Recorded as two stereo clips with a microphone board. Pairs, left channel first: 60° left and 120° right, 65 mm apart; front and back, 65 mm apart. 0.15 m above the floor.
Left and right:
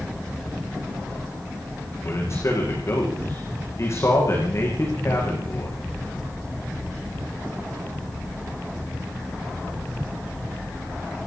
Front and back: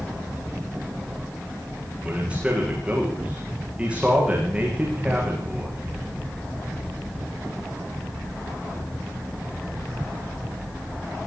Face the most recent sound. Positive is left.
turn(degrees=105)